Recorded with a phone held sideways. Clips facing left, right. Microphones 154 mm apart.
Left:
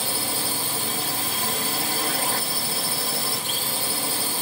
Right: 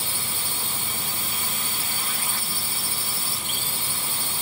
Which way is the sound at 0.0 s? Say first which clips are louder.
Left 7 dB; 65° left (ahead or behind).